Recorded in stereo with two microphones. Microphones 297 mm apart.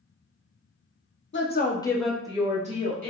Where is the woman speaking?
40° left (ahead or behind), 0.6 m; by 3.1 s 30° right (ahead or behind), 1.2 m.